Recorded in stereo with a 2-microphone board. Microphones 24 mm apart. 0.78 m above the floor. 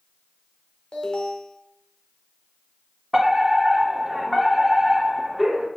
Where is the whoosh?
I don't hear a whoosh.